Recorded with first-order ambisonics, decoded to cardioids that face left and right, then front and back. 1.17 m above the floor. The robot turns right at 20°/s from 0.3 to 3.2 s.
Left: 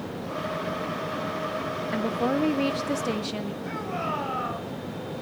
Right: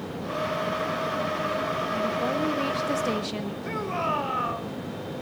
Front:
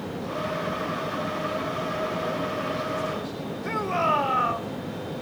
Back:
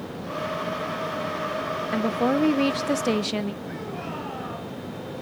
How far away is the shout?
About 4.5 m.